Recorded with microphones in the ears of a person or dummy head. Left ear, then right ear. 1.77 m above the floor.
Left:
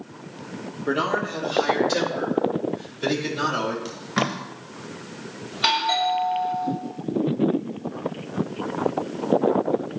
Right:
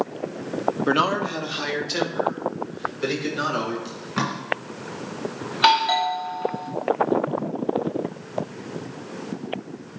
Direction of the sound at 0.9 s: 45° right (ahead or behind).